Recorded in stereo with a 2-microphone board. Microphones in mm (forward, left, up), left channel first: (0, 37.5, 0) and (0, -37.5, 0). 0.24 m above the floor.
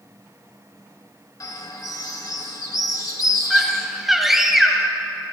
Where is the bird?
50° left (ahead or behind), 0.9 m.